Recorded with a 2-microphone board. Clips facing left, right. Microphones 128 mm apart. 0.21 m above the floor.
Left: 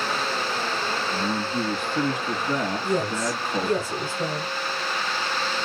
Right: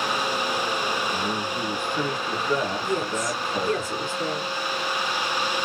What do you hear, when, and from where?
1.1 s a man speaking: 50° left (ahead or behind), 1.5 m
2.8 s a woman speaking: 30° left (ahead or behind), 1.6 m